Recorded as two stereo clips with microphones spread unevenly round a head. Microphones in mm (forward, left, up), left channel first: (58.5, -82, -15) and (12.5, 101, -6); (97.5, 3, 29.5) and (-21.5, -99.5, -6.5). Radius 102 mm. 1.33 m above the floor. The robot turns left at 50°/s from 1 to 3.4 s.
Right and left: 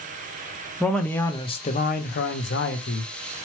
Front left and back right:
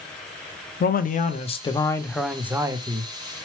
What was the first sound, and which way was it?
A man speaking, 5° left.